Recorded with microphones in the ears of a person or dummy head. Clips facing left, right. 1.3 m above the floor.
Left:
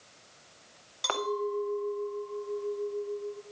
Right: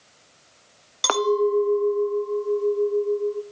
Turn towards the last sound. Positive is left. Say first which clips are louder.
# right 11 dB
turn(degrees=-70)  # may be behind; listen again after turning